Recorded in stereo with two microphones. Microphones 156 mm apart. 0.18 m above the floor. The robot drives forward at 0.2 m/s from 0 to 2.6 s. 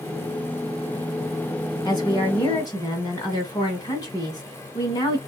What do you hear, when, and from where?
1.9 s a woman speaking: 30° left (ahead or behind), 1.4 m